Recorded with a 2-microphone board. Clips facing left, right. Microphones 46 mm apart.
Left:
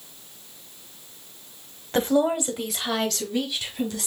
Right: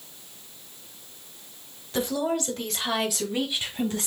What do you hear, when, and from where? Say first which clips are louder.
1.9 s a woman speaking: left 5 dB; 40° left (ahead or behind), 1.0 m; by 4.1 s 30° right (ahead or behind), 1.9 m